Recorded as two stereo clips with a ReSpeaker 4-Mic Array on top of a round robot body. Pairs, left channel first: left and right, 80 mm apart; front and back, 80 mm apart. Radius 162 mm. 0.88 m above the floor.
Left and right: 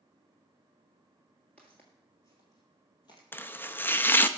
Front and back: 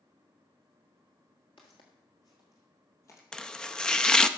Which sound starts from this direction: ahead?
Footsteps, at 1.6 s.